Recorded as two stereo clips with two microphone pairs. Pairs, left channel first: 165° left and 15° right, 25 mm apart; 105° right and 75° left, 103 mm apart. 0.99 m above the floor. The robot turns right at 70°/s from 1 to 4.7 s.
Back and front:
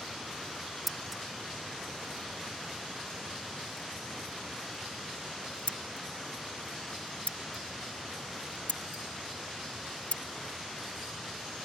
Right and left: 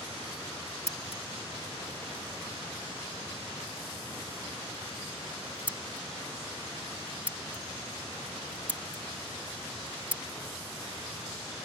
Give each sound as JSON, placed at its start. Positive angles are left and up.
{"t": 0.9, "sound": "scissors", "azimuth_deg": -105}